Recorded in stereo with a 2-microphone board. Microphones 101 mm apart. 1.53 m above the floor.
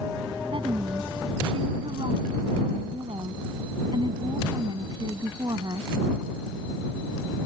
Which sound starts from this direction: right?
A woman speaking, at 0.5 s.